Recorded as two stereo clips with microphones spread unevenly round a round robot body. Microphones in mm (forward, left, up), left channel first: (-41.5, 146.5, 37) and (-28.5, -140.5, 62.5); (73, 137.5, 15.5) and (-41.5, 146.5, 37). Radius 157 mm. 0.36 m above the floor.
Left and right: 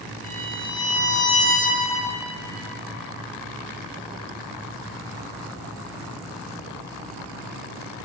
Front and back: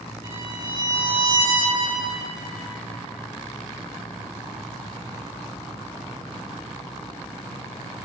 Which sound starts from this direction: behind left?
A violin, at 0.2 s.